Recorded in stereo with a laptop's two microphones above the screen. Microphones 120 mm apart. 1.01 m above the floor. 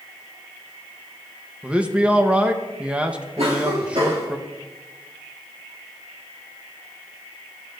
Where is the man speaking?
10° right (ahead or behind), 0.9 m.